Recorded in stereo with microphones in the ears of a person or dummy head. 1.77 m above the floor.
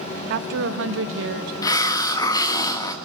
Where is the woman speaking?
60° right (ahead or behind), 1.4 m; by 1.5 s 70° right (ahead or behind), 1.4 m.